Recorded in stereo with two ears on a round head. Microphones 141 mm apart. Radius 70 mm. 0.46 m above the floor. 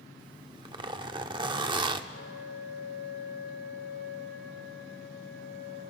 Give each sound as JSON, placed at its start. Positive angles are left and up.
{"t": 0.2, "sound": "a zipper", "side_deg": -30, "distance_m": 0.8}
{"t": 2.1, "sound": "a flute", "side_deg": 80, "distance_m": 3.0}